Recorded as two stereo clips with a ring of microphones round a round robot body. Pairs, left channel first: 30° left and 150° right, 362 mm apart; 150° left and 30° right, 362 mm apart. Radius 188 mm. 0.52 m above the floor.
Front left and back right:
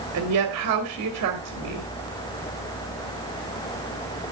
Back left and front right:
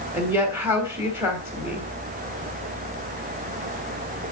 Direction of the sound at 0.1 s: 110° right.